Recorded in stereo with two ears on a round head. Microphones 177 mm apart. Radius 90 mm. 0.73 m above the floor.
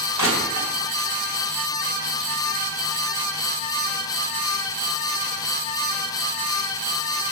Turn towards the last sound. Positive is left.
turn(degrees=80)